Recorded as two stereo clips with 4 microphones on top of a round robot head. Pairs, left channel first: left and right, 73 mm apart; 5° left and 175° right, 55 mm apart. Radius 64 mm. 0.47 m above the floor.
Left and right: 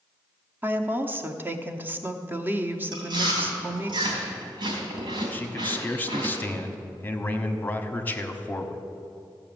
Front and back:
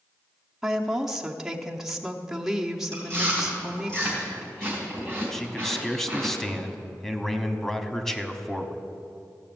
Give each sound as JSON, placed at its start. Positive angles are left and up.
{"t": 0.6, "sound": "a woman speaking", "azimuth_deg": -100, "distance_m": 1.0}
{"t": 2.9, "sound": "chewing", "azimuth_deg": -75, "distance_m": 4.0}
{"t": 5.3, "sound": "a man speaking", "azimuth_deg": 75, "distance_m": 1.3}